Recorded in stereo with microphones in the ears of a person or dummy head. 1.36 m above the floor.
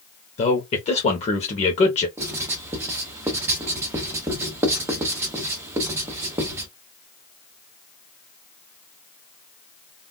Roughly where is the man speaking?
Left.